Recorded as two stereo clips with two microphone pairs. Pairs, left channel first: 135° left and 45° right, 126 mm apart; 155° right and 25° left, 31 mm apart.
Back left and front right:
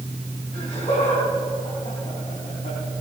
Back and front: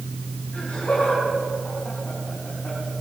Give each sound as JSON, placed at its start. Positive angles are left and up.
{"t": 0.5, "sound": "laughter", "azimuth_deg": 165, "distance_m": 4.0}